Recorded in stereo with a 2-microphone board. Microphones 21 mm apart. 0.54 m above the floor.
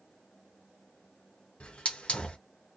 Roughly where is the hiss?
Left.